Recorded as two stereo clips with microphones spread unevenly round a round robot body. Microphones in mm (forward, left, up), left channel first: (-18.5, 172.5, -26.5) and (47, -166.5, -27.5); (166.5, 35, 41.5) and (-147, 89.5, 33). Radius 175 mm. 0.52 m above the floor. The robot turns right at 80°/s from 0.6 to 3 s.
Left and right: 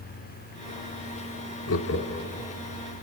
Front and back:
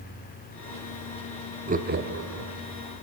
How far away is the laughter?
About 0.8 m.